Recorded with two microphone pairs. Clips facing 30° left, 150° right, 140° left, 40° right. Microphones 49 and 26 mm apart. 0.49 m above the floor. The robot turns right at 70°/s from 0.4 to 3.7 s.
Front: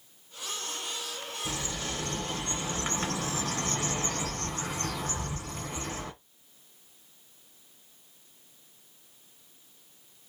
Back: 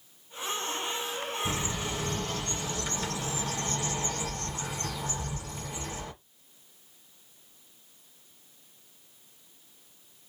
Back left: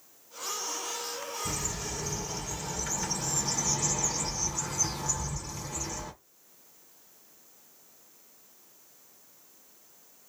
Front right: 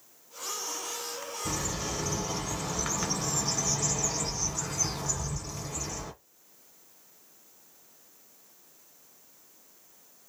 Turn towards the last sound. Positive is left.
turn(degrees=50)